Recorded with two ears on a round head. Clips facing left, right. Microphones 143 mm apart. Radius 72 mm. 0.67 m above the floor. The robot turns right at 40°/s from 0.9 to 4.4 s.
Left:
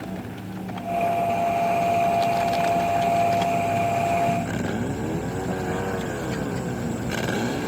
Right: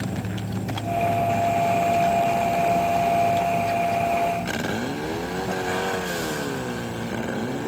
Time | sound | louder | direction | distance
0.0 | an insect | right 3 dB | 70° right | ?